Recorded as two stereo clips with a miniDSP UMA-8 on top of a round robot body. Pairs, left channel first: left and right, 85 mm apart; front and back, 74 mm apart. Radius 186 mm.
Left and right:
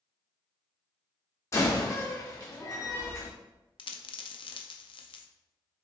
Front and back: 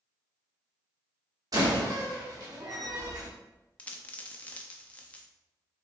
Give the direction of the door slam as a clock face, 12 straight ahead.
7 o'clock.